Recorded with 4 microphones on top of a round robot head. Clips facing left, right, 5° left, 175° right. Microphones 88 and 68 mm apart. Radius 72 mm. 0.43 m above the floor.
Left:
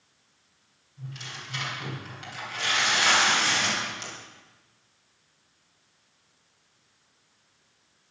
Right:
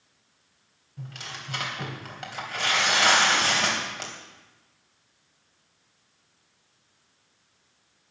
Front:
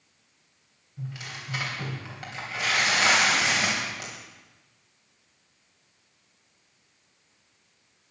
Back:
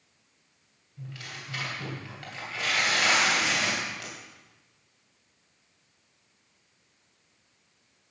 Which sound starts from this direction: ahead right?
Tearing paper, at 1.0 s.